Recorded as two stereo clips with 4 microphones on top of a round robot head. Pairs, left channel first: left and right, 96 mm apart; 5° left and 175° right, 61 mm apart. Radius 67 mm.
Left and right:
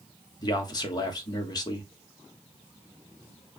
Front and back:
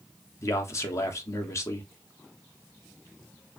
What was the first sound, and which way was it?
A man speaking, 40° left.